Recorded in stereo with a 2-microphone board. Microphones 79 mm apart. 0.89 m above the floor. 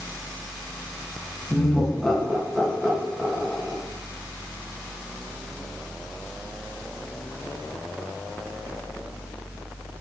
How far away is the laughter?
About 1.0 m.